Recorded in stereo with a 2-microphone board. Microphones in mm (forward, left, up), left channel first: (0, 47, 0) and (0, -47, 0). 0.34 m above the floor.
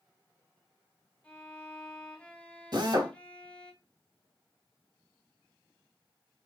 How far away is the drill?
About 2 m.